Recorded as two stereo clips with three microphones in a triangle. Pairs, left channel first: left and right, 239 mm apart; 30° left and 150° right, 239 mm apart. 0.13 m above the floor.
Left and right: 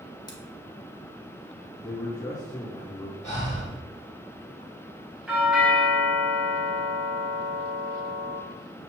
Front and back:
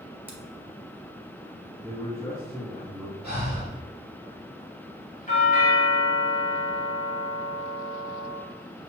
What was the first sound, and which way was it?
Scissors, 140° left.